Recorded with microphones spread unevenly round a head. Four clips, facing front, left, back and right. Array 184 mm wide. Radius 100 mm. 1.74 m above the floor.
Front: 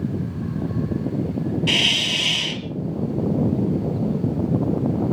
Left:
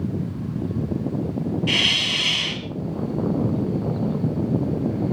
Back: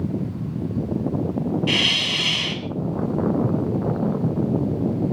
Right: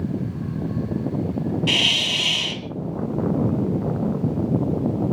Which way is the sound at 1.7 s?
60° right.